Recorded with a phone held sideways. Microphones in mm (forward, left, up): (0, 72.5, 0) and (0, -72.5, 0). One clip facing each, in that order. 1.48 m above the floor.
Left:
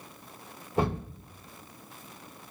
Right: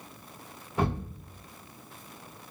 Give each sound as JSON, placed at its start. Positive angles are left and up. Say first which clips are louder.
{"t": 0.8, "sound": "a thud", "louder": "left 1 dB", "side_deg": 30, "distance_m": 1.5}